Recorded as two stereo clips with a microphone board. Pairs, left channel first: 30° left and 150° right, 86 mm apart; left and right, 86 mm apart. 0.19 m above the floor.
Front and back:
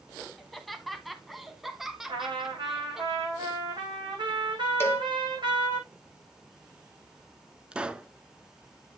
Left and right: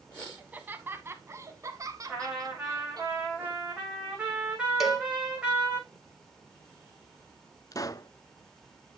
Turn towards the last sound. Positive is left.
turn(degrees=135)